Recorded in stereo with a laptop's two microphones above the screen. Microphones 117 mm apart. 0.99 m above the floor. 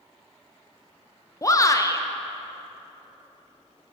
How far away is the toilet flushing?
No toilet flushing in this recording.